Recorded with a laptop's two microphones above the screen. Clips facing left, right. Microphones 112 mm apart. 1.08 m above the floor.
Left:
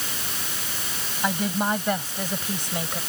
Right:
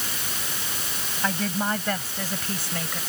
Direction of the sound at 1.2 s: 15° left (ahead or behind).